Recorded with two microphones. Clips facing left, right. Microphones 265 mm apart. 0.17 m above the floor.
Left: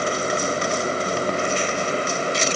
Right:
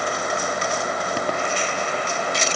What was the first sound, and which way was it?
Only background noise.